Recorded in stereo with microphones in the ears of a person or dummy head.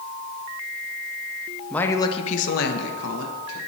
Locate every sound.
1.7 s a woman speaking: centre (ahead or behind), 0.7 m; by 3.6 s 75° left (ahead or behind), 1.3 m